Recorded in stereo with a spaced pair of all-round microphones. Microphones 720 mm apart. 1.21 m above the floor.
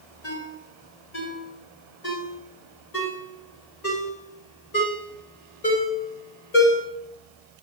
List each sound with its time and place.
0.2 s a ringtone: 65° left (ahead or behind), 4.5 m